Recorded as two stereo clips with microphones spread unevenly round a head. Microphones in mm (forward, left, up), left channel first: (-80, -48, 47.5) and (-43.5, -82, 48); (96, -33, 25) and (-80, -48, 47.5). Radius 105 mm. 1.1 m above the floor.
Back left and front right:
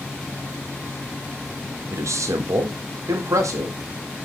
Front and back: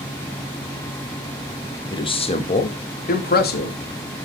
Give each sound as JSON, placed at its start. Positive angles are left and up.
{"t": 1.9, "sound": "a man speaking", "azimuth_deg": -60, "distance_m": 1.4}